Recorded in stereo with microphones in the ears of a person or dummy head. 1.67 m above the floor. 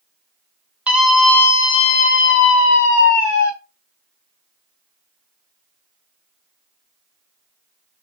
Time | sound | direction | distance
0.9 | a scream | 10° right (ahead or behind) | 0.8 m